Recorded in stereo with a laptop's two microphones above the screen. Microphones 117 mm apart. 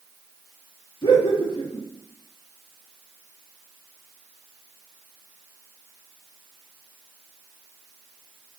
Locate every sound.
1.0 s laughter: 45° left (ahead or behind), 1.5 m